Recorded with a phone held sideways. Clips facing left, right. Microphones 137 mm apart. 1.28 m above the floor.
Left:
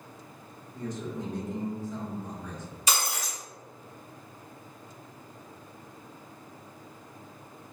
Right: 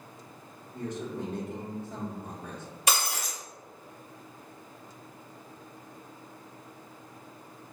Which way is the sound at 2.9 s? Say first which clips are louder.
Right 1 dB; 65° right (ahead or behind).